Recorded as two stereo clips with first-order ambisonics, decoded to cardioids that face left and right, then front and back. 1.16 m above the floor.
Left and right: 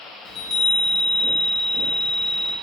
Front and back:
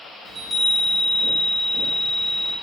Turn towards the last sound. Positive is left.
turn(degrees=110)